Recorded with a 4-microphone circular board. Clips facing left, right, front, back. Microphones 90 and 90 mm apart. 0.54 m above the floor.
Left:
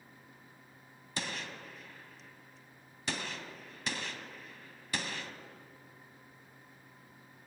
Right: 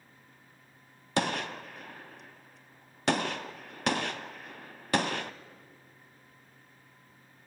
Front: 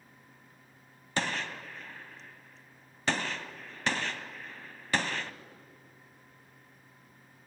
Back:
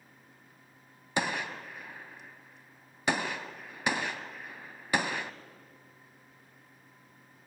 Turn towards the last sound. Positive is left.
turn(degrees=-105)